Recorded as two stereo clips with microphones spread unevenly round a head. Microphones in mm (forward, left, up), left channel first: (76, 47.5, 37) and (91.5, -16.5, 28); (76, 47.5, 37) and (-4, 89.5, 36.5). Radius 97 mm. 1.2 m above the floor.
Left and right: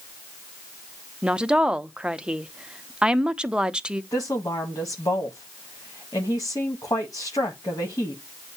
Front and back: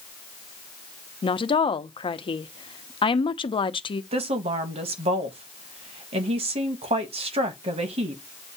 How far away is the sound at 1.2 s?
About 0.8 m.